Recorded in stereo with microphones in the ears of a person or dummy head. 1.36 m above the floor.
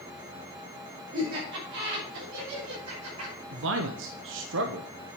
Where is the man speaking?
65° right (ahead or behind), 0.7 m.